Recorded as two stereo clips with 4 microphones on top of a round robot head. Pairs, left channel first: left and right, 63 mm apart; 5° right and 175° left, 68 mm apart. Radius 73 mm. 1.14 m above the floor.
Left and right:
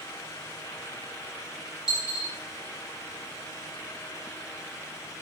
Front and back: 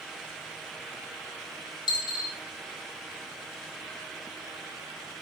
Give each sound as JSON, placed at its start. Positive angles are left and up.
{"t": 1.9, "sound": "a dropped coin", "azimuth_deg": -10, "distance_m": 0.7}